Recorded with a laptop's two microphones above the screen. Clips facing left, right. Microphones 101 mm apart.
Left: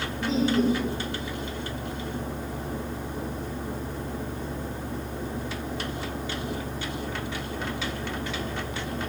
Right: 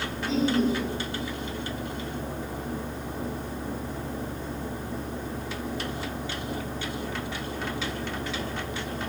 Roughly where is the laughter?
Left.